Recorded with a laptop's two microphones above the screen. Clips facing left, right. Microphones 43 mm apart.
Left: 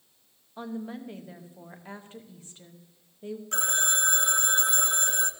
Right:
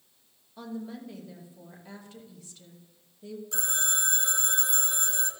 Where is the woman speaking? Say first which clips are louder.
Left 2 dB; 35° left (ahead or behind), 0.8 m.